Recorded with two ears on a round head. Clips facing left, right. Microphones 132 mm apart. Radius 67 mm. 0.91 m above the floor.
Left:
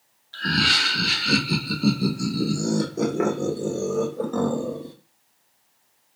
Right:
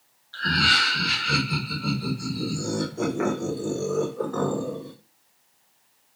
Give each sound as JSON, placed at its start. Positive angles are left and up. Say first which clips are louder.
{"t": 0.3, "sound": "laughter", "louder": "even", "side_deg": 20, "distance_m": 1.0}